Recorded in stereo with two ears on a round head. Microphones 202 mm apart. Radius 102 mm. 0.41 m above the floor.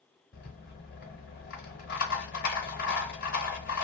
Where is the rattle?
40° left (ahead or behind), 0.9 m.